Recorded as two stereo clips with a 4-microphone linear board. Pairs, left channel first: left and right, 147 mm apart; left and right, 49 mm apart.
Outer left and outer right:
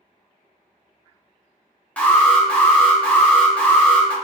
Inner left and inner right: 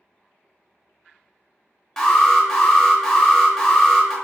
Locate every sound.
2.0 s an alarm: 10° left (ahead or behind), 0.7 m